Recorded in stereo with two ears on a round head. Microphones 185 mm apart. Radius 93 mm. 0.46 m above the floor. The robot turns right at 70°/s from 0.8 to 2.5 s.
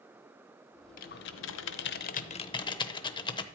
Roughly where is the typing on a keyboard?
Left.